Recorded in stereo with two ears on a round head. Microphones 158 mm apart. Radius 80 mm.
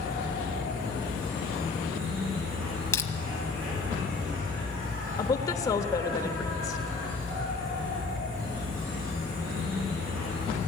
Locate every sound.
0.0 s an insect: 50° right (ahead or behind), 9.5 m
2.9 s crushing: 15° left (ahead or behind), 1.3 m
5.2 s a woman speaking: 20° left (ahead or behind), 1.1 m